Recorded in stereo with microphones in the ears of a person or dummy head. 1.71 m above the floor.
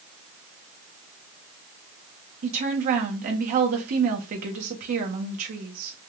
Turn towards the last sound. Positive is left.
turn(degrees=-45)  # may be behind; listen again after turning